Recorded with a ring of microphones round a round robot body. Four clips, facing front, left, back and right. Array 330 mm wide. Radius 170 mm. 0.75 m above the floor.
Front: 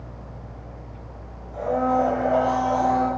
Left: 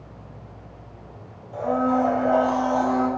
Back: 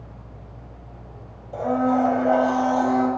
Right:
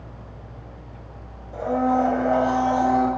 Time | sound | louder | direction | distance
1.5 | a blender | right 1 dB, back 1 dB | 155° right | 4 m